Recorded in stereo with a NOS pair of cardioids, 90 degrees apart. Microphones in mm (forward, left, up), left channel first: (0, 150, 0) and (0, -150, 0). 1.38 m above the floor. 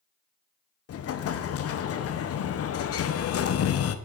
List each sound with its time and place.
0.9 s an explosion: 50° left, 0.8 m